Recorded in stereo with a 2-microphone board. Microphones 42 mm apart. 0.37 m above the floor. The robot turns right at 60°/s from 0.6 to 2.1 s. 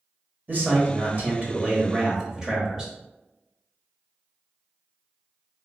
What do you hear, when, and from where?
0.5 s a man speaking: 105° right, 1.1 m; by 2.9 s 15° right, 1.1 m